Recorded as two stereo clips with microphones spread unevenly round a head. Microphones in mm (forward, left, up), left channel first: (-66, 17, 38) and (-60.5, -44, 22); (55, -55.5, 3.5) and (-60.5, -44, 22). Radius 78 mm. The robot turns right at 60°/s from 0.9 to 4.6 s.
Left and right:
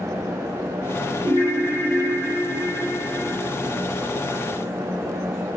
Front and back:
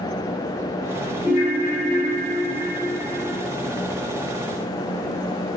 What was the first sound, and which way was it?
A ringtone, 35° right.